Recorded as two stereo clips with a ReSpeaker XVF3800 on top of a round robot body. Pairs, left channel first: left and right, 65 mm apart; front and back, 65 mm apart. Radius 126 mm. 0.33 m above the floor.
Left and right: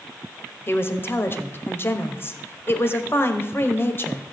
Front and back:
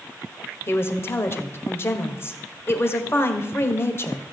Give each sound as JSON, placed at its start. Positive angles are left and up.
{"t": 0.7, "sound": "a woman speaking", "azimuth_deg": 45, "distance_m": 1.7}